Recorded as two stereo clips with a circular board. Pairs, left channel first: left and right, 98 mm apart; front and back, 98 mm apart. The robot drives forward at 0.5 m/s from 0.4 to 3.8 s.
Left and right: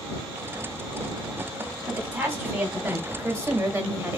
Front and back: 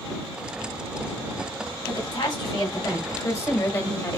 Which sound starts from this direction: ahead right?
A woman speaking, at 1.9 s.